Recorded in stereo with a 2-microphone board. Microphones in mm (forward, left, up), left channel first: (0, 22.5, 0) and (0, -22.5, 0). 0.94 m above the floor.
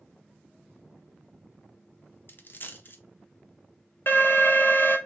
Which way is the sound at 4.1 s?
50° left (ahead or behind).